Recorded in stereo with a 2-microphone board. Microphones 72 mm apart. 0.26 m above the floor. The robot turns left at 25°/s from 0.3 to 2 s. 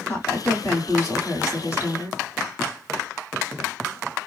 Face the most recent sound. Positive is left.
turn(degrees=85)